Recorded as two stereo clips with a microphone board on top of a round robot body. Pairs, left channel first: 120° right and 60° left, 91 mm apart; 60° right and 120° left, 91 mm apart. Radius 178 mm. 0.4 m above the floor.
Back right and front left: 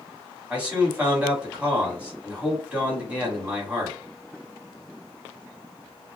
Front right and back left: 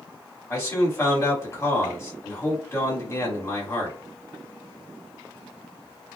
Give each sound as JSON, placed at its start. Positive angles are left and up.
{"t": 0.5, "sound": "a man speaking", "azimuth_deg": -10, "distance_m": 2.0}